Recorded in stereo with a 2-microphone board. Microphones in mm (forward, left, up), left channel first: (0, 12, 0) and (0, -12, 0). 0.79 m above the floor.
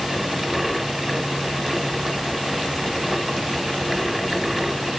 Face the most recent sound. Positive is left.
No sound to turn to.